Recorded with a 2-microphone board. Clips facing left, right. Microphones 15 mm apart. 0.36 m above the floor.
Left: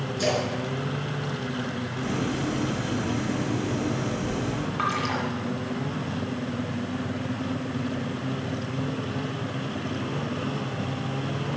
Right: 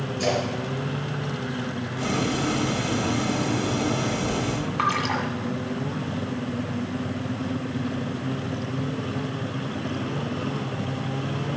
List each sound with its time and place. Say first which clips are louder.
0.2 s a splash: right 1 dB; 65° left (ahead or behind), 5 m
2.0 s boiling: right 4 dB; 35° right (ahead or behind), 0.8 m
4.8 s a splash: right 3 dB; 5° right (ahead or behind), 1.7 m